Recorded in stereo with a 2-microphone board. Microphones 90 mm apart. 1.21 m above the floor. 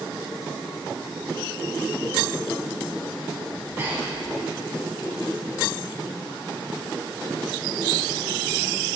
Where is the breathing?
25° right (ahead or behind), 3.5 m.